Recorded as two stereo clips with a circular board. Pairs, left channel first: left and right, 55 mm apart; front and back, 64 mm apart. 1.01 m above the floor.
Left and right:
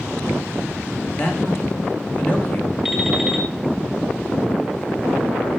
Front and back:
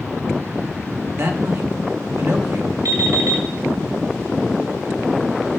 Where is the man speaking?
145° left, 1.4 m.